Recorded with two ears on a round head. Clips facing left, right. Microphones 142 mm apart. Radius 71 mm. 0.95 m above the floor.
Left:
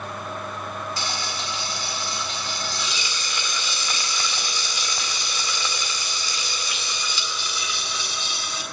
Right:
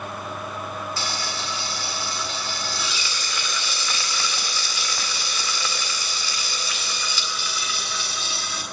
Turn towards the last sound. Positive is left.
turn(degrees=15)  # may be behind; listen again after turning